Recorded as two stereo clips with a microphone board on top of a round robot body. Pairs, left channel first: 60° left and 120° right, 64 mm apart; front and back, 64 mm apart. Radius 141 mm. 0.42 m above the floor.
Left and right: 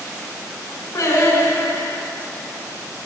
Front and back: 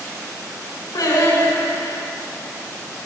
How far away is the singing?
About 7.5 m.